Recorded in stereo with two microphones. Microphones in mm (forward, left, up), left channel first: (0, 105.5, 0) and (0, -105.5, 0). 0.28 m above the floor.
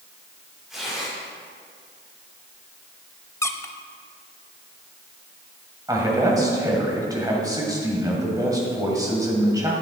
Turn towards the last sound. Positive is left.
turn(degrees=-15)  # may be behind; listen again after turning